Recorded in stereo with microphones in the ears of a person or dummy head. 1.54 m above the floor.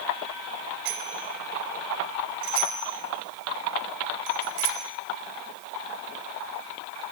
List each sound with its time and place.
0.8 s a bicycle bell: 60° right (ahead or behind), 6 m; by 4.8 s 80° right, 6.5 m